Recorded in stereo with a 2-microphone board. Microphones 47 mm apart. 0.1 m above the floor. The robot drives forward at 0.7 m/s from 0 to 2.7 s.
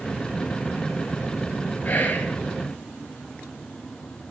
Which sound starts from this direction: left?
Whispering, at 1.9 s.